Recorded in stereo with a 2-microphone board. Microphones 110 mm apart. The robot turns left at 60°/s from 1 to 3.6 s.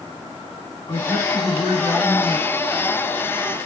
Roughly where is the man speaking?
Ahead left.